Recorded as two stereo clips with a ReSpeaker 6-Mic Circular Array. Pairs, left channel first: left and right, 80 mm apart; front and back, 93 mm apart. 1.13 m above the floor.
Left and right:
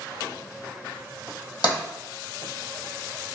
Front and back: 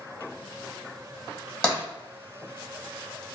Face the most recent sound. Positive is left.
turn(degrees=75)